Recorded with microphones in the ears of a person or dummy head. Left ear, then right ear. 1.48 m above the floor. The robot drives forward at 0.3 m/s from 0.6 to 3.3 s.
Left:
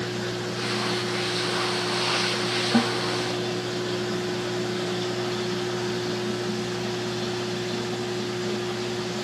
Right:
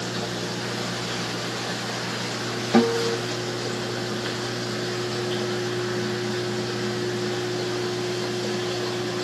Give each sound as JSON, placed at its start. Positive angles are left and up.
{"t": 2.7, "sound": "a guitar", "side_deg": -70, "distance_m": 1.7}